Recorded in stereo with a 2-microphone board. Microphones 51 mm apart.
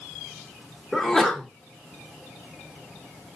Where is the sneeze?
5° left (ahead or behind), 0.8 m.